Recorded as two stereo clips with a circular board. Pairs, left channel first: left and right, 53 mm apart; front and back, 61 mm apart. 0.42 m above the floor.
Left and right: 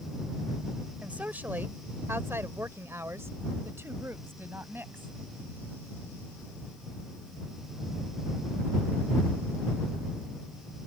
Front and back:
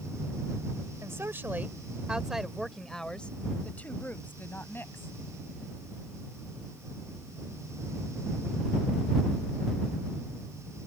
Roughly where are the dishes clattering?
No dishes clattering in this recording.